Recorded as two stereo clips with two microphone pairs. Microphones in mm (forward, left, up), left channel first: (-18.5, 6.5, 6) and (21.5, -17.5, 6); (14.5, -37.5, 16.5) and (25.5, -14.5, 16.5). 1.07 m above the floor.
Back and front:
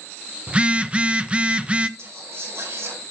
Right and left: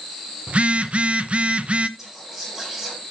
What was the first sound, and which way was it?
A phone buzzing, 30° left.